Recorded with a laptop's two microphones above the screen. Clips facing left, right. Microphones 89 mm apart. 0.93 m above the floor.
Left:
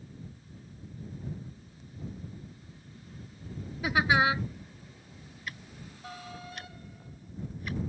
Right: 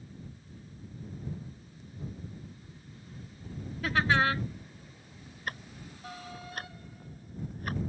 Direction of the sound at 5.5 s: 50° right (ahead or behind).